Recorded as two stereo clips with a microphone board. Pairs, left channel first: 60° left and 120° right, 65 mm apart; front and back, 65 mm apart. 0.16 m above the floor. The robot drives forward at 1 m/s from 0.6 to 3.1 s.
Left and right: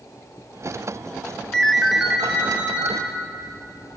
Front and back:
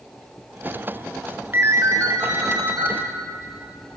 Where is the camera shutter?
No camera shutter in this recording.